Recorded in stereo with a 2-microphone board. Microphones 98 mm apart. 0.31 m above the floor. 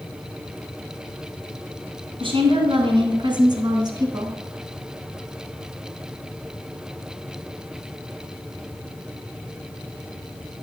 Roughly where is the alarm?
I don't hear an alarm.